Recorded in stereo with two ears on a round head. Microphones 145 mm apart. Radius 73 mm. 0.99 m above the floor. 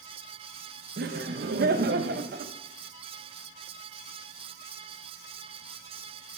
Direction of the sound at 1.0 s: 60° right (ahead or behind).